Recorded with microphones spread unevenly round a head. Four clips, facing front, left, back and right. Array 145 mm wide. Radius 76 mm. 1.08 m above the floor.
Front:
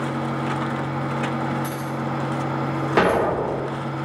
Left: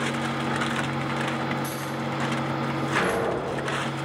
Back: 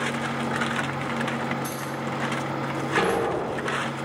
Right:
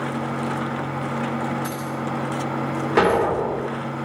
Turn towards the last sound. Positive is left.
turn(degrees=-45)